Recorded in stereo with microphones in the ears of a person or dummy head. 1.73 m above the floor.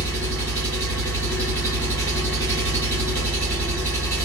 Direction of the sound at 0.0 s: 10° left (ahead or behind).